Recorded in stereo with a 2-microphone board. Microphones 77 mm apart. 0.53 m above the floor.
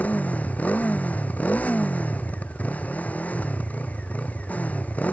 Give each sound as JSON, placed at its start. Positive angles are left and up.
{"t": 0.0, "sound": "a motorcycle", "side_deg": 20}